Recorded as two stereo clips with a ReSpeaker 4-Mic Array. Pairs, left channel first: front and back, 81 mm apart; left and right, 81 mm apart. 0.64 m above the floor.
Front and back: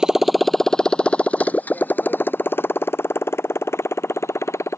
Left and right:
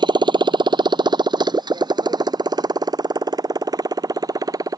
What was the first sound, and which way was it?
A motorcycle, 100° right.